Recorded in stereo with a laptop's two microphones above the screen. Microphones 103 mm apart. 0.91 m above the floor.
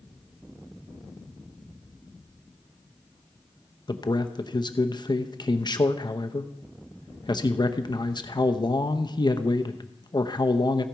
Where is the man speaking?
45° left (ahead or behind), 0.8 m.